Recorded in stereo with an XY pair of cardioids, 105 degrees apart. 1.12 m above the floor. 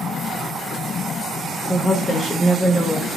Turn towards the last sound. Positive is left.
turn(degrees=20)